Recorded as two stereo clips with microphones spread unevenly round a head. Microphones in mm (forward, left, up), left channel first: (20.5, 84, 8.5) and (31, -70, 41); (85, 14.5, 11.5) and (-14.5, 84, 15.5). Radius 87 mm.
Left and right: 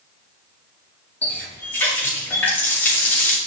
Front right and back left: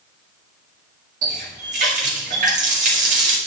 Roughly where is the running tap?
Behind.